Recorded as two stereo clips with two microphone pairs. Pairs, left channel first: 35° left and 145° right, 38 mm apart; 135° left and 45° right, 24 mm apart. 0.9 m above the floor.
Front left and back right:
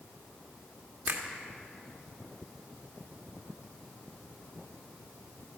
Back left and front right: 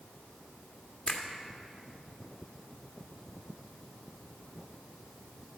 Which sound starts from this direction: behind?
A finger snap, at 1.1 s.